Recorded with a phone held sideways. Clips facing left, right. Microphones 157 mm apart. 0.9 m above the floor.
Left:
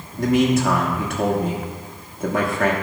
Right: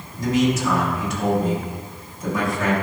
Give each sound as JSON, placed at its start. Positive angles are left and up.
{"t": 0.2, "sound": "a man speaking", "side_deg": 60, "distance_m": 1.4}